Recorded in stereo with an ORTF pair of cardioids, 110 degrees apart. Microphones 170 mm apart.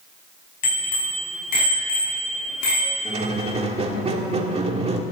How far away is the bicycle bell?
About 6.5 m.